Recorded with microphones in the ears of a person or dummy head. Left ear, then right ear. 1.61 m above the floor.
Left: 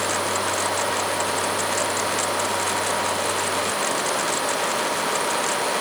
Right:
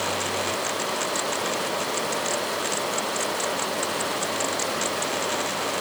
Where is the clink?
No clink in this recording.